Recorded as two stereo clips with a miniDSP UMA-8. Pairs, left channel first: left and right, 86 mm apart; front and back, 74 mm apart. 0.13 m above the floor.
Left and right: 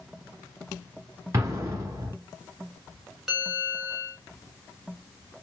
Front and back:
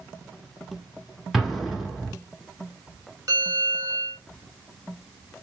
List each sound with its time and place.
1.3 s an explosion: 95° right, 1.4 m
3.3 s a bell: straight behind, 1.4 m